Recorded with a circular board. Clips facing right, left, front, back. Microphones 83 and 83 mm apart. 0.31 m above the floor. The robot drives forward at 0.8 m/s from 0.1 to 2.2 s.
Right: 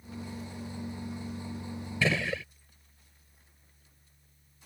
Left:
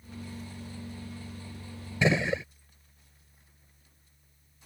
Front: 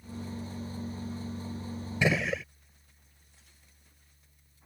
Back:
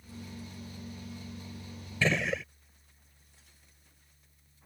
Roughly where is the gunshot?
Ahead left.